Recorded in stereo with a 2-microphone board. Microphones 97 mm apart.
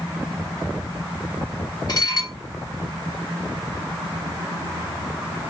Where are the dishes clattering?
40° left (ahead or behind), 1.6 m.